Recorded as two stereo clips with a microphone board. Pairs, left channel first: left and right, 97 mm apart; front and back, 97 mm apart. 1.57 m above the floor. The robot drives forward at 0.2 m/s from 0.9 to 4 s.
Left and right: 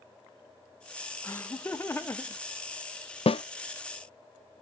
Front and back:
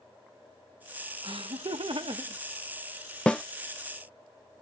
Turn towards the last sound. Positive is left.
turn(degrees=95)